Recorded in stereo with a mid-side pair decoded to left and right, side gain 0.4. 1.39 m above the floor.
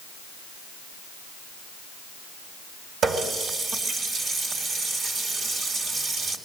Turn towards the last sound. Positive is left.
turn(degrees=-70)